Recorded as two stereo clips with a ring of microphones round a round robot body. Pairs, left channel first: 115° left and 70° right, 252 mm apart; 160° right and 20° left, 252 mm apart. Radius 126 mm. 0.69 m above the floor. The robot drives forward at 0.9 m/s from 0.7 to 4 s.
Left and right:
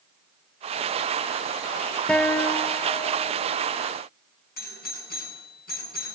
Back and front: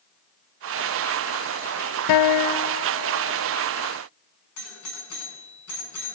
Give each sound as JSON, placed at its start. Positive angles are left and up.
{"t": 2.1, "sound": "a guitar", "azimuth_deg": -160, "distance_m": 0.6}
{"t": 4.6, "sound": "a doorbell", "azimuth_deg": 170, "distance_m": 8.0}